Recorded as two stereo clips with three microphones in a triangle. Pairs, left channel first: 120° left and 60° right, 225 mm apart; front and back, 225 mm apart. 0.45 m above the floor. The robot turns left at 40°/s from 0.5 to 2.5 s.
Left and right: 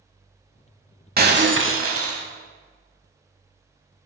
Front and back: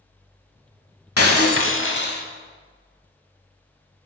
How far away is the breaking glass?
About 0.7 m.